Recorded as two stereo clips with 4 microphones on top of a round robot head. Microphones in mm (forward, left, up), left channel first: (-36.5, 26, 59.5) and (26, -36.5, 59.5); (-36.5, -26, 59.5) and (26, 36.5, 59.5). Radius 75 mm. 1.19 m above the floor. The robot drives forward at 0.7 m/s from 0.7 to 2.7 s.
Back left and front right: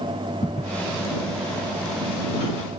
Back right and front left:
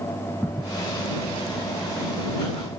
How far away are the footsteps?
About 3 m.